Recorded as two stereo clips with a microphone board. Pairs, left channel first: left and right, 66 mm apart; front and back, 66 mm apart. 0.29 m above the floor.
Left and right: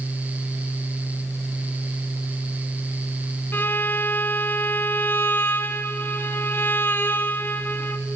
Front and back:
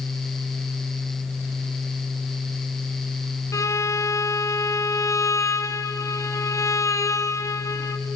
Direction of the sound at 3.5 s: 30° left.